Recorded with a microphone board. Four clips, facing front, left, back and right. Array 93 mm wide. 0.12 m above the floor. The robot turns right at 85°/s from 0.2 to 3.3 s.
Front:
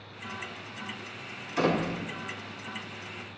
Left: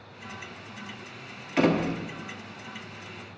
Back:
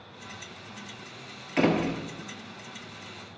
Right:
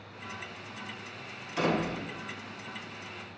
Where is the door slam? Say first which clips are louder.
Left 5 dB, back 2 dB; 130° left, 1.4 m; by 2.0 s 170° left, 1.4 m.